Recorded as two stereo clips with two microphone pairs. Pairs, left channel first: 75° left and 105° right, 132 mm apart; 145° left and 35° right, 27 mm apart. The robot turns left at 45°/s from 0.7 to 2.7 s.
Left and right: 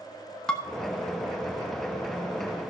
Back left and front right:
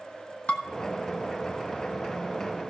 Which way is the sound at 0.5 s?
155° left.